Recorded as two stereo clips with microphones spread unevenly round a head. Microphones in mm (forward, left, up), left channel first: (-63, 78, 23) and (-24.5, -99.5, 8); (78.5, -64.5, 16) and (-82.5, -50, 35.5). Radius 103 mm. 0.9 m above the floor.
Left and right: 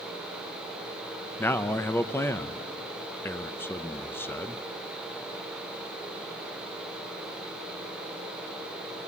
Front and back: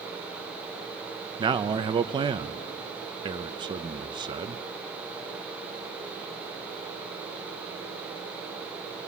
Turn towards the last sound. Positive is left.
turn(degrees=170)